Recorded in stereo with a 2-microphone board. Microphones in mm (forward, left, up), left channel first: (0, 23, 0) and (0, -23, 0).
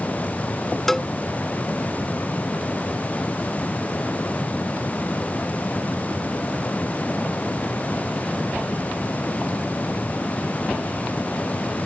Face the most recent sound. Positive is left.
turn(degrees=10)  # may be behind; listen again after turning